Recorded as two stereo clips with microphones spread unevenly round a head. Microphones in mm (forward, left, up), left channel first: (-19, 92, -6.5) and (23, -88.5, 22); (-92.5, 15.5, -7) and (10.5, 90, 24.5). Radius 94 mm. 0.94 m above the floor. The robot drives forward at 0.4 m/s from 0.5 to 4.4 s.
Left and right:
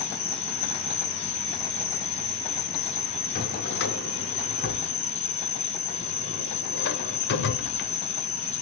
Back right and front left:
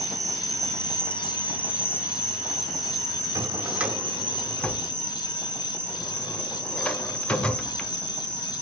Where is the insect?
105° left, 1.9 m; by 8.6 s 150° left, 2.5 m.